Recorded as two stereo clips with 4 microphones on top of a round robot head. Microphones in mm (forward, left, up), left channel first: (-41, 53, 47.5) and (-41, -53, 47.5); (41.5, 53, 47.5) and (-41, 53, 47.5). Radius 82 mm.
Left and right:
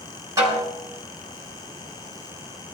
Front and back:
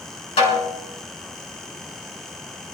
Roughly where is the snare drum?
Ahead right.